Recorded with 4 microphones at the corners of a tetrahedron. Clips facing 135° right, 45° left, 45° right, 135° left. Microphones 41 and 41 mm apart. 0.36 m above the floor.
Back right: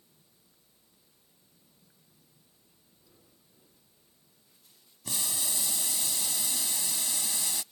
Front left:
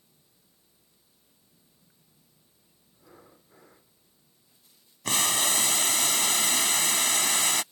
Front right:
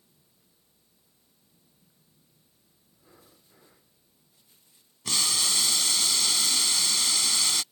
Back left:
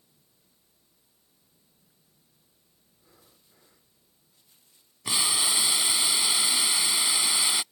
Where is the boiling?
60° left.